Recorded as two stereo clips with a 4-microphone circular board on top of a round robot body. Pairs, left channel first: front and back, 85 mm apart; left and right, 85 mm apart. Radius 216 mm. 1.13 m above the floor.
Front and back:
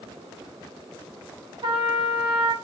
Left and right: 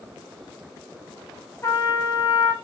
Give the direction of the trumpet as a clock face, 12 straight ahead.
7 o'clock.